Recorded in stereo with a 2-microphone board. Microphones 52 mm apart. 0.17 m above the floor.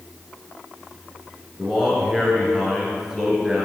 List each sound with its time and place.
1.6 s a man speaking: 10° right (ahead or behind), 2.5 m